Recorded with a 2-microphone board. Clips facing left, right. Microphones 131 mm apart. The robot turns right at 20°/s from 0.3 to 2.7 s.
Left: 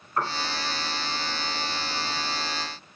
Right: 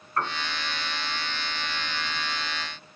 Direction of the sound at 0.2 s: 15° left (ahead or behind).